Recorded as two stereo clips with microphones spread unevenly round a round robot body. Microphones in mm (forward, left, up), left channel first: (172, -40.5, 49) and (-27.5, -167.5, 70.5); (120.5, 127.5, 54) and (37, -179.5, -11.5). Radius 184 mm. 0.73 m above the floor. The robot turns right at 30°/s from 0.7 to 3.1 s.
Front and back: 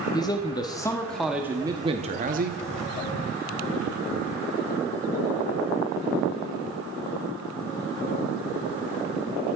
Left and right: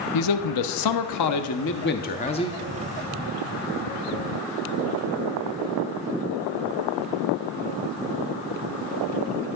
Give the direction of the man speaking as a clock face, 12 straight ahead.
9 o'clock.